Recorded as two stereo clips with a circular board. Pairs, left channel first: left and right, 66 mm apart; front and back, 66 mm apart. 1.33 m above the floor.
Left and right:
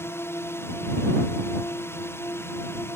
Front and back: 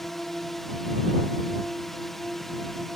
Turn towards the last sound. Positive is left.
turn(degrees=85)